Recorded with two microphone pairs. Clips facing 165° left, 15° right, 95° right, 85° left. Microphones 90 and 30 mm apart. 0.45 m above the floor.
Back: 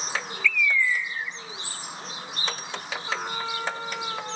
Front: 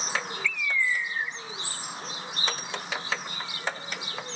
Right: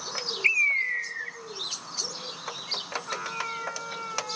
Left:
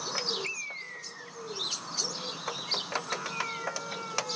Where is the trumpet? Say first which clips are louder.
Back 4 dB, right 1 dB; 170° right.